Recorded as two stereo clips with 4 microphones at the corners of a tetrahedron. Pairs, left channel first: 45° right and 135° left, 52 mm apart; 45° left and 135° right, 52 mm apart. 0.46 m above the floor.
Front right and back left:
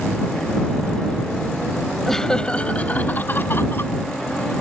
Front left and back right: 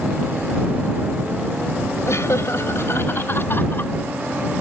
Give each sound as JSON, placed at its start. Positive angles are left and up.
{"t": 2.1, "sound": "laughter", "azimuth_deg": 40}